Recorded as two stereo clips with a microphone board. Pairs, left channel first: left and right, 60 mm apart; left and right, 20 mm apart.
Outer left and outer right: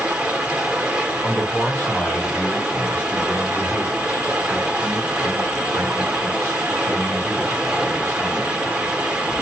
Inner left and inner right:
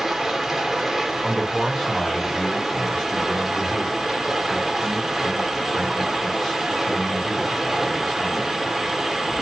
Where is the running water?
15° right (ahead or behind), 1.0 m.